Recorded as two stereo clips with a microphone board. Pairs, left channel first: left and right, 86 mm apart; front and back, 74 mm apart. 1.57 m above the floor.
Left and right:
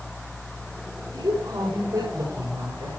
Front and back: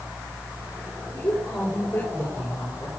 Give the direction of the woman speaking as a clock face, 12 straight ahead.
2 o'clock.